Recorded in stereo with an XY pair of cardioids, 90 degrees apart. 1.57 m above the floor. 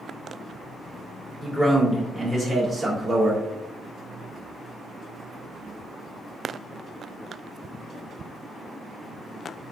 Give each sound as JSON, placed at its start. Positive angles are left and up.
{"t": 1.4, "sound": "a man speaking", "azimuth_deg": 5, "distance_m": 1.9}